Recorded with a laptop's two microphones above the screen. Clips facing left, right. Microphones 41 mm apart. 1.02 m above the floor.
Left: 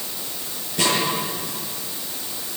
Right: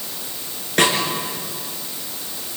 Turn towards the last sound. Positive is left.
turn(degrees=-75)  # may be behind; listen again after turning